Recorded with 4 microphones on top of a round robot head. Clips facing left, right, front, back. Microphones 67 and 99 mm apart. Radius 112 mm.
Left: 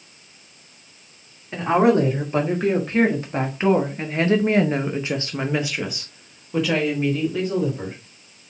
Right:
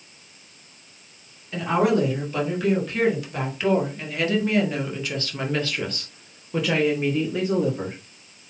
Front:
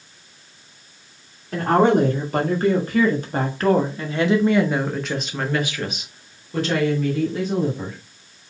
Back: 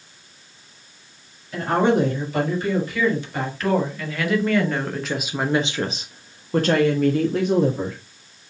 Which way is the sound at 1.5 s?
35° left.